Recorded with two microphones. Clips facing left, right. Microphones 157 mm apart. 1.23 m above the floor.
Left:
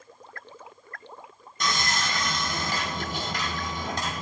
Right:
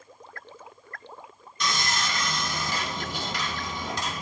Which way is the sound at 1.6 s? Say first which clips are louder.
Left 1 dB; 45° left (ahead or behind).